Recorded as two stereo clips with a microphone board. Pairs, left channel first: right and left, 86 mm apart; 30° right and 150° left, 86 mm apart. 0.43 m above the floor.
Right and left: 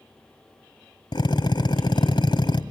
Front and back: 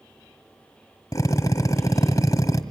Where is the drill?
75° right, 1.7 m.